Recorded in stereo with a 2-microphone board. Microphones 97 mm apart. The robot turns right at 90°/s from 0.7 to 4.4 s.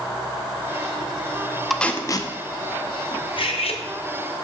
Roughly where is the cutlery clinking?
Ahead left.